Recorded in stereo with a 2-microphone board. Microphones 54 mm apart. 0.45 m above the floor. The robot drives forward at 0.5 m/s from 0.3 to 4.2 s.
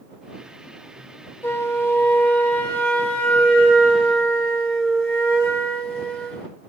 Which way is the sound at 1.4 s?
50° left (ahead or behind).